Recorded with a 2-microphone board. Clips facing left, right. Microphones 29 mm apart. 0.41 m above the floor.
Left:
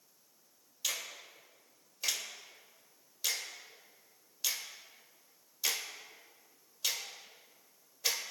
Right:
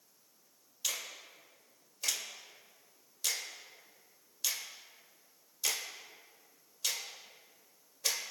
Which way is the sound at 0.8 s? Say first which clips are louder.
Left 1 dB; 10° left (ahead or behind).